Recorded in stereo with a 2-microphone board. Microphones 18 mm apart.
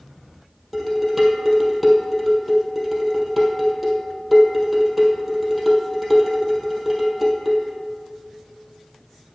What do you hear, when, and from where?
0.7 s dishes clattering: centre (ahead or behind), 2.5 m